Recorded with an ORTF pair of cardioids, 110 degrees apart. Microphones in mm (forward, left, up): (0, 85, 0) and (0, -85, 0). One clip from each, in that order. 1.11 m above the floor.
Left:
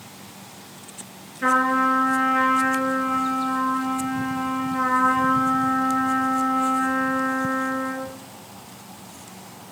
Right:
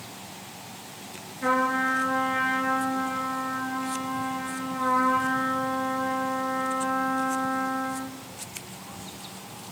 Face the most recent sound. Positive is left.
turn(degrees=55)